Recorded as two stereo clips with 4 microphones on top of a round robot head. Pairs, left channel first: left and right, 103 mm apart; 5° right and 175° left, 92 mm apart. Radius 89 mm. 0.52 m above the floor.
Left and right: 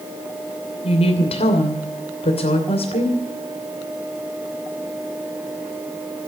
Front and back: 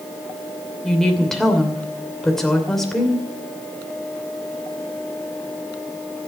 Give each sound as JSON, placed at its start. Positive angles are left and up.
{"t": 0.8, "sound": "a woman speaking", "azimuth_deg": 85, "distance_m": 2.5}